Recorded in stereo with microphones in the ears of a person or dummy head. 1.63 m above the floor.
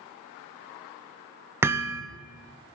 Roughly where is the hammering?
Centre.